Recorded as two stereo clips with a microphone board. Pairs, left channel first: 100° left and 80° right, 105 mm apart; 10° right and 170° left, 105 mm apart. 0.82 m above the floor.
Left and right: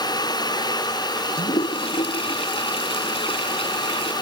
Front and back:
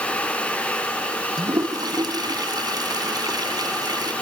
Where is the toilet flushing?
120° left.